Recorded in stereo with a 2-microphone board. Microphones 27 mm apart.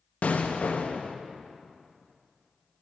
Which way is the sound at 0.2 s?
60° left (ahead or behind).